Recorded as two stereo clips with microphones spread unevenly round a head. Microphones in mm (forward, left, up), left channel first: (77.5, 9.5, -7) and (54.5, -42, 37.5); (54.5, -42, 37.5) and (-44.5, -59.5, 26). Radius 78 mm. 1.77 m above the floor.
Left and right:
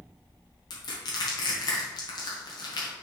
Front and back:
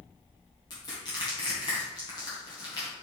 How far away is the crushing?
About 1.8 m.